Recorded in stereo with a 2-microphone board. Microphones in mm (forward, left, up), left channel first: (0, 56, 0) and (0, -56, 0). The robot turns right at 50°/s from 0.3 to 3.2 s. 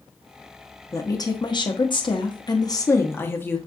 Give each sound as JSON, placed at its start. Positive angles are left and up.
{"t": 0.9, "sound": "a woman speaking", "azimuth_deg": 35, "distance_m": 0.8}